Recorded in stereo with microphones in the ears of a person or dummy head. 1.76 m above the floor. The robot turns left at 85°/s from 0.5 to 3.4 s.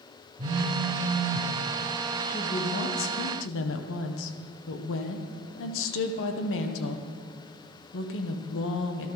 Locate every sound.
0.4 s a phone buzzing: 60° right, 2 m; by 1.5 s 145° right, 2 m
2.3 s a woman speaking: 170° left, 1.7 m; by 9.1 s 75° left, 1.7 m